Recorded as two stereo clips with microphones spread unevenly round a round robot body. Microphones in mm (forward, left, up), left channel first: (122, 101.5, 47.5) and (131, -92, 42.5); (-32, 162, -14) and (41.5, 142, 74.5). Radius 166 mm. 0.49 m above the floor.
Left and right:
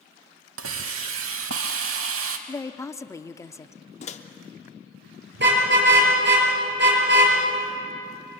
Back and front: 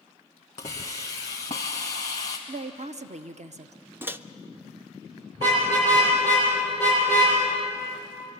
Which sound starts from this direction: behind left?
A microwave, at 4.0 s.